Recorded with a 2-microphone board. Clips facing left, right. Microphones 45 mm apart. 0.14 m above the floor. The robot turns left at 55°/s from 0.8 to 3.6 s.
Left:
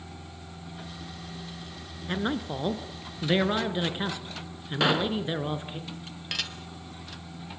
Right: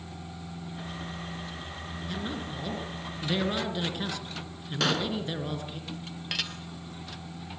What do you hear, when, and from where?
2.1 s a man speaking: 115° left, 2 m; by 5.8 s 30° left, 2 m
4.8 s a pop: 15° left (ahead or behind), 1.3 m
6.3 s dishes clattering: centre (ahead or behind), 1.9 m